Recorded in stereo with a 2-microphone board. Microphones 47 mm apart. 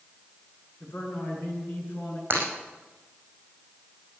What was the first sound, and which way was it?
A man speaking, 50° left (ahead or behind).